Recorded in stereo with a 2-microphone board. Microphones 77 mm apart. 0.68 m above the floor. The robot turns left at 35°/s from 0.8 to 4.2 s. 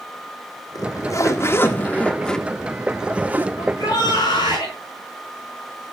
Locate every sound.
0.8 s a zipper: 65° left, 1.7 m; by 3.5 s 30° right, 1.7 m
3.6 s a shout: 45° left (ahead or behind), 8 m; by 4.7 s 70° left (ahead or behind), 8 m